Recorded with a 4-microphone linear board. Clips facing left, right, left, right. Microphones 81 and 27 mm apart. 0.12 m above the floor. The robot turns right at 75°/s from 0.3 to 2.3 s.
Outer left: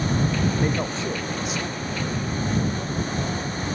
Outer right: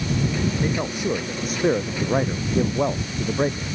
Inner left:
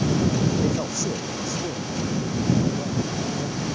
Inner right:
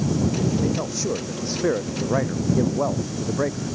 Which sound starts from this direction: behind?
A man speaking, at 0.6 s.